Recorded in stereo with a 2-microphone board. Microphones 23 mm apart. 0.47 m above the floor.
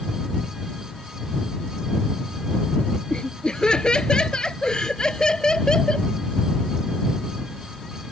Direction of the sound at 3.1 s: 50° left (ahead or behind).